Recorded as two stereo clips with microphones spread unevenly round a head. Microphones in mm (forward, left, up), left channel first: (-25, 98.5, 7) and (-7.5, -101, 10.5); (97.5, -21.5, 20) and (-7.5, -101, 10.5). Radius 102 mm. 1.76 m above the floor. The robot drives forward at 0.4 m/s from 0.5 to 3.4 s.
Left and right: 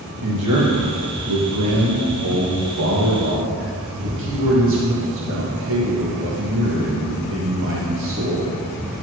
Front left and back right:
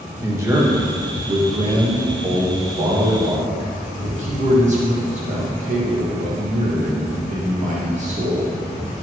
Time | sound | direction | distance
0.2 | a man speaking | 75° right | 1.8 m